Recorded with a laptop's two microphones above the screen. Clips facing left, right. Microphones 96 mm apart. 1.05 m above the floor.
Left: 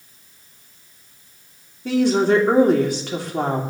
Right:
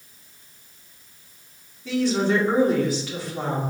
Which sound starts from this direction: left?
A woman speaking, at 1.9 s.